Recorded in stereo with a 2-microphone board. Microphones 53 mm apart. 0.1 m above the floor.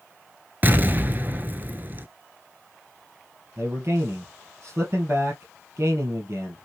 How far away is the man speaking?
About 2.5 m.